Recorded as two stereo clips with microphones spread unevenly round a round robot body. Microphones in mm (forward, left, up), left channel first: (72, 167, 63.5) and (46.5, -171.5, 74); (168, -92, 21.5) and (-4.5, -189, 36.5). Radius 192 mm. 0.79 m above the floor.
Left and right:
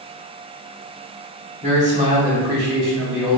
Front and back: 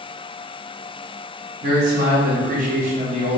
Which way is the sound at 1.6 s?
160° right.